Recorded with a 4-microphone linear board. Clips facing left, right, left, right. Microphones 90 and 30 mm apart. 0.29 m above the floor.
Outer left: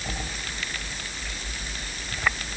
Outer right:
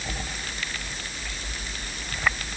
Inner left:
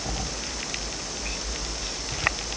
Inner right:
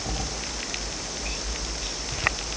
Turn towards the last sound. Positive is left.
No sound to turn to.